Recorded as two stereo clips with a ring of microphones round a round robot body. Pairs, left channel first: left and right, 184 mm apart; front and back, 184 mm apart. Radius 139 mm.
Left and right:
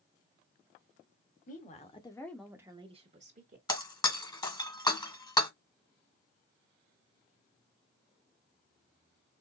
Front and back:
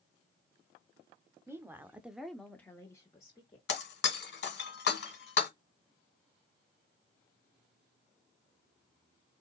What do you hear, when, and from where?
1.5 s a woman speaking: 110° left, 1.5 m; by 3.6 s 70° right, 1.8 m
3.7 s breaking glass: 20° left, 1.8 m